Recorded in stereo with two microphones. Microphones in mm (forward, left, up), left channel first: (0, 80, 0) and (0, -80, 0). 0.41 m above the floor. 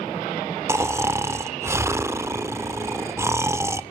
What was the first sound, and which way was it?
Snoring, 15° right (ahead or behind).